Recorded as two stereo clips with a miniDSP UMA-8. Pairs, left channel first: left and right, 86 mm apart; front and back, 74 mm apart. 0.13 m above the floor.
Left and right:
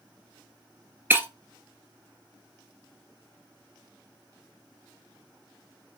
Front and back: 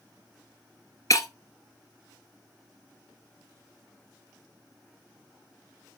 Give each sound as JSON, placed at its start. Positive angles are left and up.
{"t": 1.1, "sound": "breaking glass", "azimuth_deg": -30, "distance_m": 0.8}